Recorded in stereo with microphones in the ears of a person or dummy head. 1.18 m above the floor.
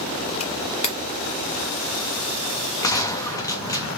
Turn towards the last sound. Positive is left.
turn(degrees=15)  # may be behind; listen again after turning